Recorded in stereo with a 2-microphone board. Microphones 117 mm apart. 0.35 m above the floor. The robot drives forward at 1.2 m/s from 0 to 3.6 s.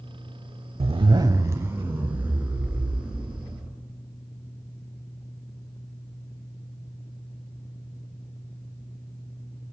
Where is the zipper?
60° right (ahead or behind), 0.6 m; by 3.7 s 10° right (ahead or behind), 3.5 m.